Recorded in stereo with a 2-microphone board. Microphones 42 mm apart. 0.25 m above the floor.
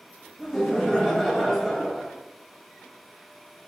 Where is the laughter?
5° right (ahead or behind), 1.0 m.